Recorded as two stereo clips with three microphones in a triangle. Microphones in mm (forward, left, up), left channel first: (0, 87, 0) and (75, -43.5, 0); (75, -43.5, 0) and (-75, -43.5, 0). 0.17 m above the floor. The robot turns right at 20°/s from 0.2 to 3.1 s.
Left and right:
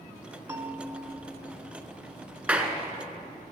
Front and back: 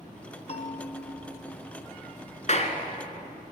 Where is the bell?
5° left, 1.7 m; by 1.8 s 30° left, 1.7 m.